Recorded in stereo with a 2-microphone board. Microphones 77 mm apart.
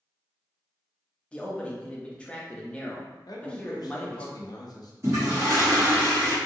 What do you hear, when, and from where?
1.3 s a man speaking: 15° left (ahead or behind), 0.7 m
3.3 s a man speaking: 60° left (ahead or behind), 0.6 m
5.0 s a toilet flushing: 40° right (ahead or behind), 1.8 m